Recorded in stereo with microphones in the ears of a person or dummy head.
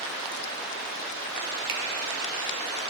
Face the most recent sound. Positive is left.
turn(degrees=-85)